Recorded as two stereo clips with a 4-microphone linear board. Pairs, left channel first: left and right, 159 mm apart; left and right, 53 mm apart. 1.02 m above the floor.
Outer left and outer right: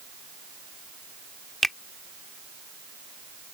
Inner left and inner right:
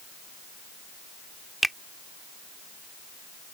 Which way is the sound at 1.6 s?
Centre (ahead or behind).